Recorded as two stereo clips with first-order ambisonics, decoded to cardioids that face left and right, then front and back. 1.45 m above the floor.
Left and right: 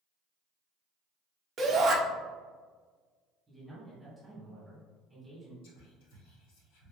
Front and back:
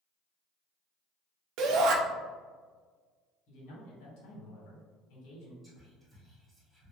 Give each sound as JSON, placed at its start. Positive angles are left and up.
{"t": 1.6, "sound": "a shout", "azimuth_deg": -155, "distance_m": 0.6}
{"t": 3.5, "sound": "a man speaking", "azimuth_deg": 0, "distance_m": 1.8}
{"t": 5.6, "sound": "whispering", "azimuth_deg": 90, "distance_m": 1.3}